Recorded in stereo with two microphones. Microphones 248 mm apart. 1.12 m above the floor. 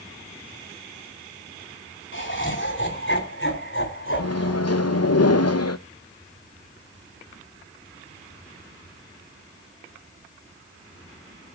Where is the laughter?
50° left (ahead or behind), 7 m; by 5.2 s 55° left (ahead or behind), 8.5 m.